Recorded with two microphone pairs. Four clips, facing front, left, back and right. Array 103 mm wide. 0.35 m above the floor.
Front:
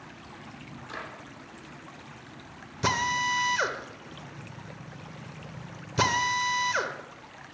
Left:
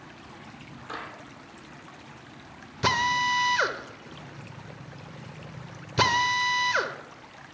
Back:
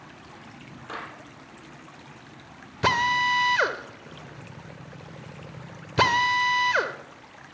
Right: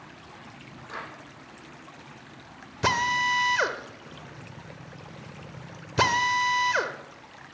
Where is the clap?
160° left, 8.5 m.